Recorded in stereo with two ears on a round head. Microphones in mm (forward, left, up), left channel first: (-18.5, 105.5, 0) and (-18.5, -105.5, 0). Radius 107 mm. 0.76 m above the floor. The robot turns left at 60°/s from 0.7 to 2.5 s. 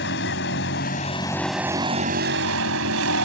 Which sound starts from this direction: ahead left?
A vehicle, at 0.0 s.